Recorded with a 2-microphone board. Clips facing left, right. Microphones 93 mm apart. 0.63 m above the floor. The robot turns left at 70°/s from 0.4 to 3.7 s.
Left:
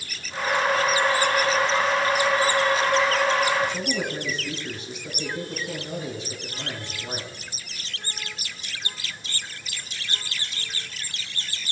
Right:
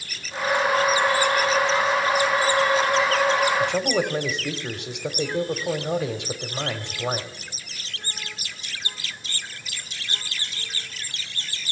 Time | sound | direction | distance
3.6 | a man speaking | 70° right (ahead or behind) | 1.7 m